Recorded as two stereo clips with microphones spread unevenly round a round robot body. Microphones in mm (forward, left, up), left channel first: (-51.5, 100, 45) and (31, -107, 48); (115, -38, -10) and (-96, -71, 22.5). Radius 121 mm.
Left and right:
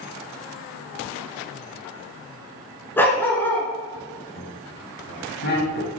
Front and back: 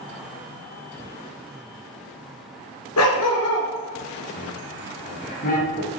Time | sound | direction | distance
3.0 | a dog barking | 30° left | 2.5 m
4.4 | laughter | 65° left | 5 m